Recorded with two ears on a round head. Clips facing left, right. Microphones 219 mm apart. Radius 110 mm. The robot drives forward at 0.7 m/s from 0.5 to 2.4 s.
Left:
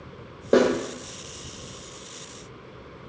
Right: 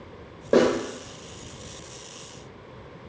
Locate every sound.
0.5 s a snare drum: 20° left (ahead or behind), 1.4 m; by 0.7 s 25° left (ahead or behind), 1.3 m